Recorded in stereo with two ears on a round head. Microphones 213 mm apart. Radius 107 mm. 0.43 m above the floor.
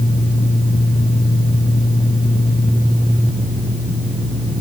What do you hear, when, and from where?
Only background noise.